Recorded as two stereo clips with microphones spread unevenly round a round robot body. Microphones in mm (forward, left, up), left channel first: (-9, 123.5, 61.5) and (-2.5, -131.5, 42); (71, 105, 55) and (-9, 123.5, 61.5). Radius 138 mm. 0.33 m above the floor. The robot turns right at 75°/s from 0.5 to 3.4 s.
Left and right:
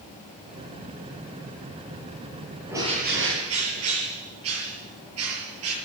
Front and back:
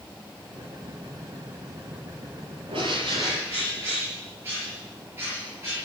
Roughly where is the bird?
Behind.